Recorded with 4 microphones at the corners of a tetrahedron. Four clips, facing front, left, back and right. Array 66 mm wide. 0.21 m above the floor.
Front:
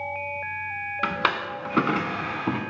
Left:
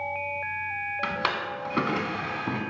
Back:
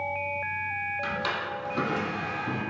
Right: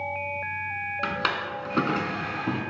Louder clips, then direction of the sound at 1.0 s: Right 1 dB, front 5 dB; 5° left.